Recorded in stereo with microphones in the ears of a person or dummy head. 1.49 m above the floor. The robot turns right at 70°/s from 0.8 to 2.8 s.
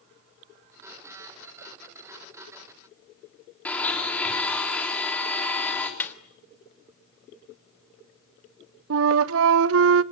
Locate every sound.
3.6 s a blender: 10° left (ahead or behind), 4 m
6.0 s a snare drum: 10° left (ahead or behind), 1.2 m
8.9 s a flute: 75° right (ahead or behind), 0.7 m